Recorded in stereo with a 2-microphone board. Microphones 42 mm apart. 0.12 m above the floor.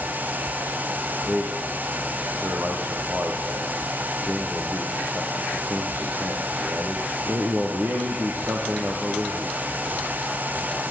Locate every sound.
1.3 s a man speaking: 60° right (ahead or behind), 5 m